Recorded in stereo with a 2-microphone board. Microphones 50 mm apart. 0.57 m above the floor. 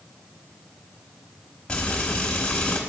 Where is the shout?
I don't hear a shout.